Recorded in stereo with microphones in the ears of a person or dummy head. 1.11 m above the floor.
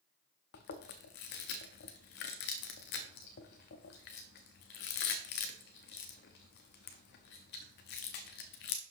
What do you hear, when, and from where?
0.5 s chewing: 45° left (ahead or behind), 0.7 m